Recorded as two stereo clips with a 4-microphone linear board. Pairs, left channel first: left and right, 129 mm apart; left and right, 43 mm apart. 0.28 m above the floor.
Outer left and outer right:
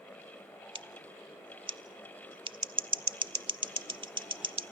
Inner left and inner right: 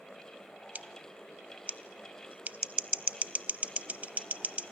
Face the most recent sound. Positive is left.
turn(degrees=-35)  # may be behind; listen again after turning